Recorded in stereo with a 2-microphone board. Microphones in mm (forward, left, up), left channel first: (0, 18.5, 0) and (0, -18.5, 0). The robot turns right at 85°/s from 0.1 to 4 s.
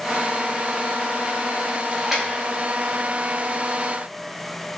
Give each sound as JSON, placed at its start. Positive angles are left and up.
{"t": 1.9, "sound": "a splash", "side_deg": 10, "distance_m": 0.9}